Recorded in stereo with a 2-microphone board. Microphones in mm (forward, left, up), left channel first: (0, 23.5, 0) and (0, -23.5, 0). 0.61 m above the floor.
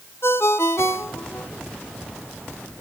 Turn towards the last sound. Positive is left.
turn(degrees=60)  # may be behind; listen again after turning